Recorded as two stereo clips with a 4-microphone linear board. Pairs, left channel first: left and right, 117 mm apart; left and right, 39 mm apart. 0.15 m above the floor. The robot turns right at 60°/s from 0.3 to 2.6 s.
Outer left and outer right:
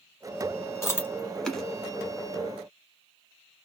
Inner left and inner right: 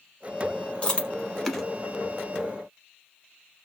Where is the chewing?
25° left (ahead or behind), 1.1 m; by 1.6 s centre (ahead or behind), 1.1 m.